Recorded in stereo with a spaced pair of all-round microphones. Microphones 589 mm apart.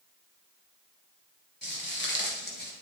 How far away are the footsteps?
About 2 m.